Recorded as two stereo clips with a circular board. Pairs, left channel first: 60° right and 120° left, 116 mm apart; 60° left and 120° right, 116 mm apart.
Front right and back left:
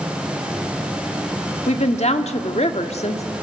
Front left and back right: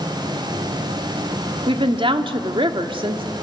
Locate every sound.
1.7 s a woman speaking: 75° right, 1.5 m